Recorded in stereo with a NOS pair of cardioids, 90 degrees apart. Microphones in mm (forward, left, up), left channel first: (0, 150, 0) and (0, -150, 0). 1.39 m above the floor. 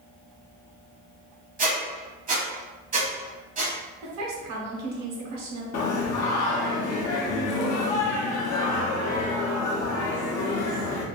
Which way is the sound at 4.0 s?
65° right.